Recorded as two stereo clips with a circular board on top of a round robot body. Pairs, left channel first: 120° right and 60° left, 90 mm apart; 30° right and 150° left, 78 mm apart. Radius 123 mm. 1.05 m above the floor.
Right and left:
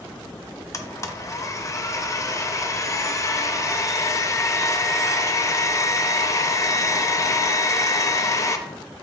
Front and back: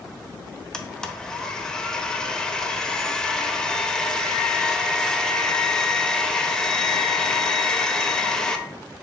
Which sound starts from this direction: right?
A blender, at 0.7 s.